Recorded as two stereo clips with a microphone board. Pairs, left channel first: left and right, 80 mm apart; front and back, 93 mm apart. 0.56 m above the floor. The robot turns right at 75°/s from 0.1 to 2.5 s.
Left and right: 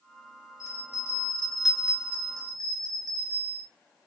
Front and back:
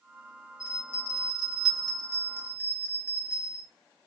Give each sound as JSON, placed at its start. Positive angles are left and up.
{"t": 0.6, "sound": "a bell", "azimuth_deg": 100, "distance_m": 1.4}